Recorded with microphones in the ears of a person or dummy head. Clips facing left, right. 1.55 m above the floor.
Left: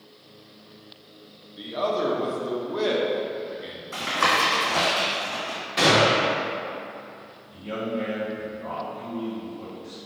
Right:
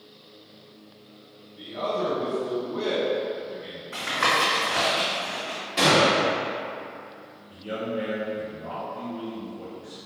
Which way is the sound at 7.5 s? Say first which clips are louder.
Left 1 dB; 20° right (ahead or behind).